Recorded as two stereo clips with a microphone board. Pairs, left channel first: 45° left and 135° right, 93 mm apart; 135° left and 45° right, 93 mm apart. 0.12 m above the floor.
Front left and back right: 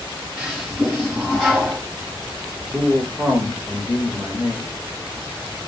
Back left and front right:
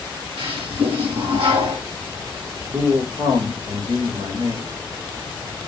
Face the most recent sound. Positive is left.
turn(degrees=-60)